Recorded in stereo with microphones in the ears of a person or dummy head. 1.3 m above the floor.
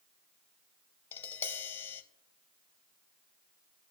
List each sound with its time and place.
1.1 s tapping: 20° left (ahead or behind), 0.7 m